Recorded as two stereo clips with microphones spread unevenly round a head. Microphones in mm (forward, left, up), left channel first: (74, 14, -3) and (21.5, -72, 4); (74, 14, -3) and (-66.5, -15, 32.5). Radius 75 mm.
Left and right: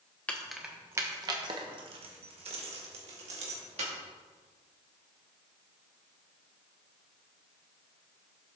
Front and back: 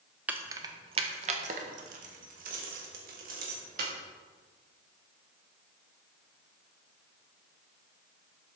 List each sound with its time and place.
0.3 s keys jangling: 140° left, 0.9 m; by 3.9 s 145° right, 3 m